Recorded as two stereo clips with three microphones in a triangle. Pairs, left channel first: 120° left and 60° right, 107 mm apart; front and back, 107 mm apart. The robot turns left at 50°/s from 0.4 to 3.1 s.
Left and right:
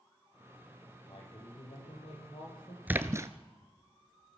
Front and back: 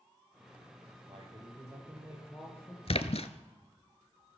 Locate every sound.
1.1 s a man speaking: 155° left, 7.5 m; by 2.8 s 65° left, 7.5 m
2.9 s a splash: 15° left, 1.0 m; by 3.3 s straight ahead, 1.0 m